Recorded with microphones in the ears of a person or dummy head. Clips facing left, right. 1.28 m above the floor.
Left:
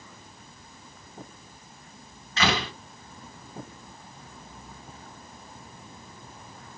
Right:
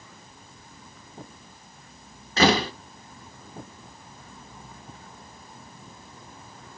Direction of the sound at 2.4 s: 30° right (ahead or behind).